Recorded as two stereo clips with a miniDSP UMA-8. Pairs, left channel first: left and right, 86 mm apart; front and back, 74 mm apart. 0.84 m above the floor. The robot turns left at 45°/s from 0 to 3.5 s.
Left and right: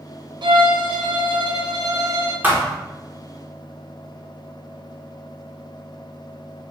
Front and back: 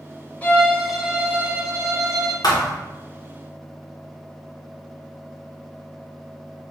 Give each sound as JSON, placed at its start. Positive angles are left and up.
{"t": 0.4, "sound": "a violin", "azimuth_deg": -65, "distance_m": 0.5}
{"t": 2.4, "sound": "a thud", "azimuth_deg": -25, "distance_m": 0.7}